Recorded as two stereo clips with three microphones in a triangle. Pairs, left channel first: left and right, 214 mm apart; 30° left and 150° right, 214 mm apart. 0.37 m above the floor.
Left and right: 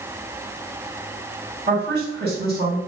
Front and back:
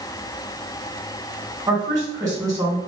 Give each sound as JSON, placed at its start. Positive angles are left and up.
{"t": 1.7, "sound": "a woman speaking", "azimuth_deg": -80, "distance_m": 2.0}